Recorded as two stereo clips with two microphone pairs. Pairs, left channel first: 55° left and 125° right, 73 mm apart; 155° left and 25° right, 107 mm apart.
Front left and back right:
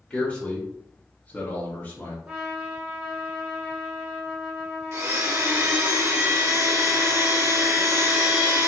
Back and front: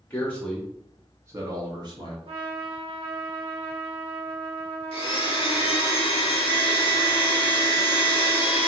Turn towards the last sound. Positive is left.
turn(degrees=-175)